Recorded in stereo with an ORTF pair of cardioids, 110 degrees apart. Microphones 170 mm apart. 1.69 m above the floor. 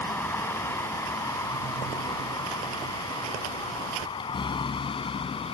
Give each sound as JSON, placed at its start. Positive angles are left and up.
{"t": 0.0, "sound": "a vehicle", "azimuth_deg": 15}